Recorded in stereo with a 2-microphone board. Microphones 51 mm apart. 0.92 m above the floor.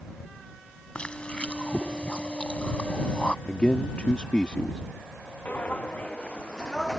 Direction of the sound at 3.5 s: 25° left (ahead or behind).